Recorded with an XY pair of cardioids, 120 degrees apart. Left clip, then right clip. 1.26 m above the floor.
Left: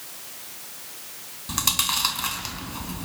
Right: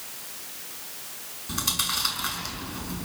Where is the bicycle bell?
No bicycle bell in this recording.